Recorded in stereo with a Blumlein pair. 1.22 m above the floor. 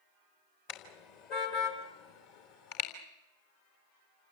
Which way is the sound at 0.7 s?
45° left.